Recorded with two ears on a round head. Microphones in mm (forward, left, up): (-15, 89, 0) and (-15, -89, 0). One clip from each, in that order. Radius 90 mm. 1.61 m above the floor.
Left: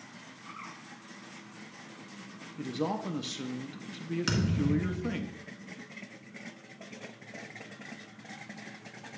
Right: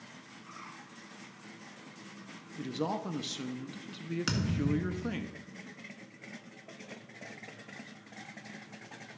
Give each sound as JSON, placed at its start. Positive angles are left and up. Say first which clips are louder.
{"t": 0.5, "sound": "a bird", "louder": "left 4 dB", "side_deg": 20, "distance_m": 4.5}
{"t": 2.6, "sound": "a man speaking", "louder": "left 1 dB", "side_deg": -10, "distance_m": 0.5}
{"t": 4.3, "sound": "a thud", "louder": "left 2 dB", "side_deg": -5, "distance_m": 1.6}